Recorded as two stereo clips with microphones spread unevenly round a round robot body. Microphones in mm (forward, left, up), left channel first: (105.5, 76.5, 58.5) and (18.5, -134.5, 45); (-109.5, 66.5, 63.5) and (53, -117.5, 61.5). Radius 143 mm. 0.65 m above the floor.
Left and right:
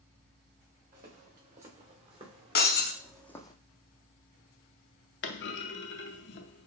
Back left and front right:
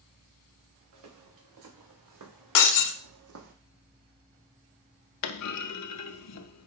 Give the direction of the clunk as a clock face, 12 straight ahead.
8 o'clock.